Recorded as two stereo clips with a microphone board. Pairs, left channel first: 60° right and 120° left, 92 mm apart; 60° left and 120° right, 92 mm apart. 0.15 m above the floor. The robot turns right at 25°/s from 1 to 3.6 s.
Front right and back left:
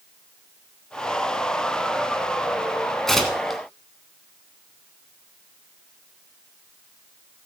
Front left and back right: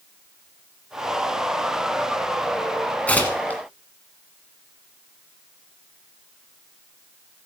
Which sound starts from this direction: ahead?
Tearing paper, at 3.1 s.